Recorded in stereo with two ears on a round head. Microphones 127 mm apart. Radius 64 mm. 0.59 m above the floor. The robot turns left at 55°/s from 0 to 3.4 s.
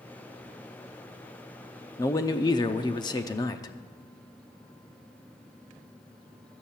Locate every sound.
2.0 s a man speaking: 135° left, 0.6 m; by 3.7 s 55° left, 0.6 m